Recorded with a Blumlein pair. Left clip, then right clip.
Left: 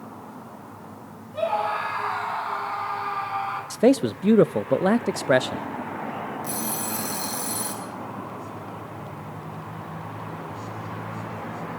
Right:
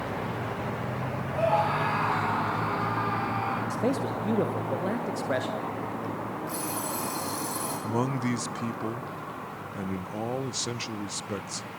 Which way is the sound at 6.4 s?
45° left.